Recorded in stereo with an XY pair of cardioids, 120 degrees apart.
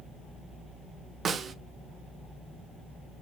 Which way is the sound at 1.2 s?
40° right.